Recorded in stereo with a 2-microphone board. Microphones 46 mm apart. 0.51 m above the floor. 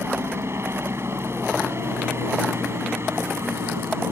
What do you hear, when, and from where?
0.0 s a helicopter: 70° right (ahead or behind)